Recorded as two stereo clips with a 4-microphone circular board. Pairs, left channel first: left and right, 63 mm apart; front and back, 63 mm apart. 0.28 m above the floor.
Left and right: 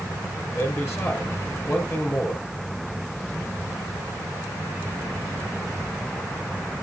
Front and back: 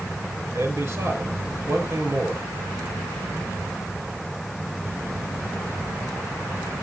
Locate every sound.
0.5 s a man speaking: 145° left, 5 m